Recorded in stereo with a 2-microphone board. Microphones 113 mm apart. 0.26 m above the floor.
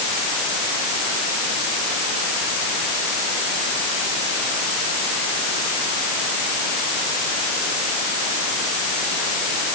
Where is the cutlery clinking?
I don't hear cutlery clinking.